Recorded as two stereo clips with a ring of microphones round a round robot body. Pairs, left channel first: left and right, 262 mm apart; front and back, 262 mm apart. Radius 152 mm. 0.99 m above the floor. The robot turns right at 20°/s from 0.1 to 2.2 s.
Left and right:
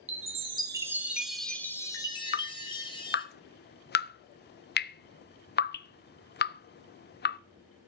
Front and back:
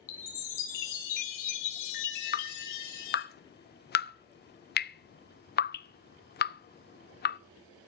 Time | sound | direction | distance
0.1 | a chime | 25° right | 2.0 m
2.3 | dripping | 45° left | 0.5 m